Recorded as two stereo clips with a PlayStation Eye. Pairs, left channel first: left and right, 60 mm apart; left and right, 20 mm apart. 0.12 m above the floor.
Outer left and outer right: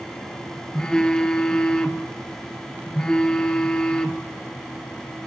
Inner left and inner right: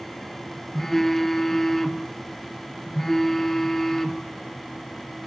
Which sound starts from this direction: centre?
A phone buzzing, at 0.7 s.